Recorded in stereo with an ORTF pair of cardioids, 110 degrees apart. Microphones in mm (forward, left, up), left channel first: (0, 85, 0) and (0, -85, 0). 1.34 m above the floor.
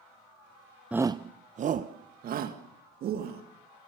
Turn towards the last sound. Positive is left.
turn(degrees=-65)